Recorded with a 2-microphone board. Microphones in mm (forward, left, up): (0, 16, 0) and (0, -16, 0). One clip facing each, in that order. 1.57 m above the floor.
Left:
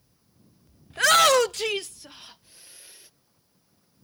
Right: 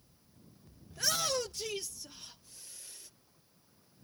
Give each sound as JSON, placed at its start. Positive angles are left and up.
{"t": 0.9, "sound": "a shout", "side_deg": 50}